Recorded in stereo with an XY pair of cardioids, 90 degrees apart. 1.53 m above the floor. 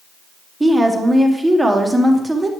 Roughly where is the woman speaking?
Ahead.